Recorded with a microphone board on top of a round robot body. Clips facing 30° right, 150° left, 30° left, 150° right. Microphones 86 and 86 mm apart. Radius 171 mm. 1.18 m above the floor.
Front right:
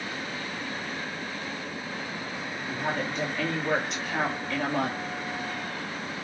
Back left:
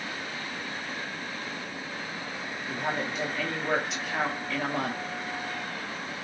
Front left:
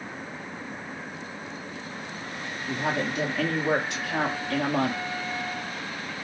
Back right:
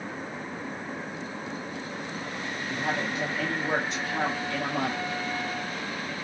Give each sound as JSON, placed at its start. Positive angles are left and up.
{"t": 2.7, "sound": "a woman speaking", "azimuth_deg": 60, "distance_m": 2.5}